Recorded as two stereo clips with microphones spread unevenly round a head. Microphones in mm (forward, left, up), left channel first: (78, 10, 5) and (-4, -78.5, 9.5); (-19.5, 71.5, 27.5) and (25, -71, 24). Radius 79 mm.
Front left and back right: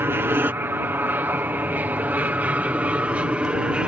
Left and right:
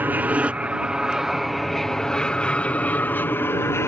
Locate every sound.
0.0 s an aircraft: 120° right; by 3.9 s 155° left